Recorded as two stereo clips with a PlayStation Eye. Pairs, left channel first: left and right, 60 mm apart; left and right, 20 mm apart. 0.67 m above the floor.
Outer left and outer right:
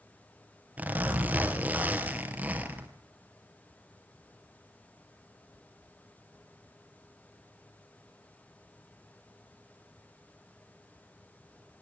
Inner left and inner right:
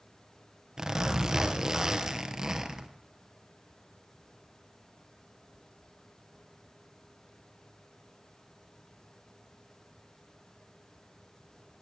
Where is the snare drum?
No snare drum in this recording.